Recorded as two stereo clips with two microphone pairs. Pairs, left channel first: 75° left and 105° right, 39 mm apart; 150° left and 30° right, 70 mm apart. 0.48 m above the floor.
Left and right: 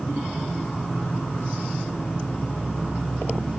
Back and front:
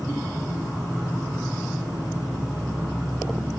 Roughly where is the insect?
Ahead.